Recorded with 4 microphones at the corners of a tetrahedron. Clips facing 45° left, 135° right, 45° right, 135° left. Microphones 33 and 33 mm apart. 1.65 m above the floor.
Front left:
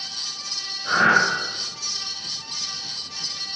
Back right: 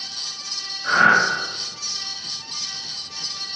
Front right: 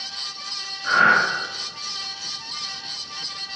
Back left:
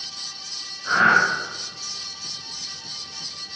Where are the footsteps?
No footsteps in this recording.